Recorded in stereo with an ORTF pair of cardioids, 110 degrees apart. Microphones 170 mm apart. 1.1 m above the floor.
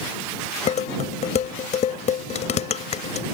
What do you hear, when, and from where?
0.7 s dishes clattering: 45° left